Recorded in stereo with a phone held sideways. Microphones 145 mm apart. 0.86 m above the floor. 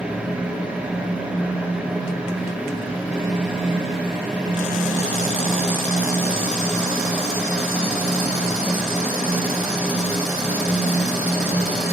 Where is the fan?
10° right (ahead or behind), 3 m.